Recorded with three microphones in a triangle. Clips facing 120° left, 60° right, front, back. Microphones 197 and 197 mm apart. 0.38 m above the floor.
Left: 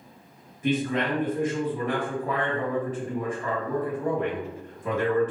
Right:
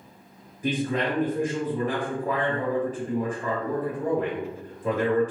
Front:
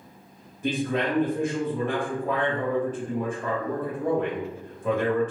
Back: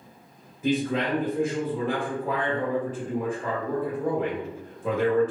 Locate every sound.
0.6 s a man speaking: 105° right, 1.7 m